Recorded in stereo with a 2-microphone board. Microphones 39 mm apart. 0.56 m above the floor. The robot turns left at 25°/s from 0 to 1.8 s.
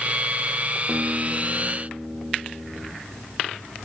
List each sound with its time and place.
0.9 s a guitar: 5° right (ahead or behind), 3.5 m; by 2.9 s 25° right (ahead or behind), 3.5 m